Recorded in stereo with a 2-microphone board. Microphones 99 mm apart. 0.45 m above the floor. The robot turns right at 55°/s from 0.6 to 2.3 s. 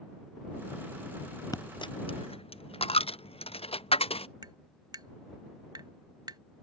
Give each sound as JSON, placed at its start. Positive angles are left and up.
{"t": 1.5, "sound": "a dropped coin", "side_deg": 35}
{"t": 4.4, "sound": "tapping", "side_deg": -45}